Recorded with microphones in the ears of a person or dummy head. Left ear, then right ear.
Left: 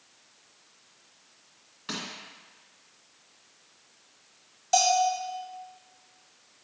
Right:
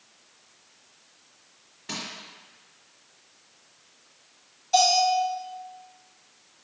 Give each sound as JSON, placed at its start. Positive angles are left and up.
{"t": 1.9, "sound": "crushing", "side_deg": 55, "distance_m": 2.5}
{"t": 4.7, "sound": "a bell", "side_deg": 50, "distance_m": 1.6}